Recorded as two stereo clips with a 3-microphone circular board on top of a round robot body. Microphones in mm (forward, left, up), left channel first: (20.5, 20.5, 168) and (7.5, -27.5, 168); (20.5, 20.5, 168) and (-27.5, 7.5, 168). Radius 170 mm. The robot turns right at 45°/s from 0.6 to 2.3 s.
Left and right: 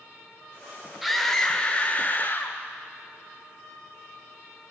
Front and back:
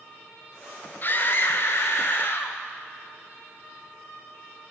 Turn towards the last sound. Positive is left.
turn(degrees=40)